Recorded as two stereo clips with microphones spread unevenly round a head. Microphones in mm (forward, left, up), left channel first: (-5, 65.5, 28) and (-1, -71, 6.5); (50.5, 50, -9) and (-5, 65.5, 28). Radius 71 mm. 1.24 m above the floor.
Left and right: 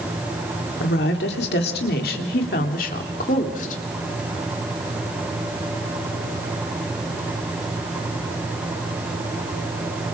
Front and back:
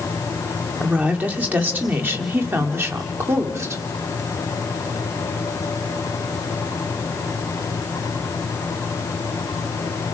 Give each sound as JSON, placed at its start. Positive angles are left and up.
{"t": 0.8, "sound": "a woman speaking", "azimuth_deg": 95, "distance_m": 3.5}